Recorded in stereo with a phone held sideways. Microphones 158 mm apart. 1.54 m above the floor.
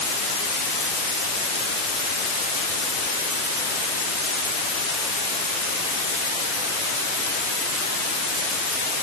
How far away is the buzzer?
No buzzer in this recording.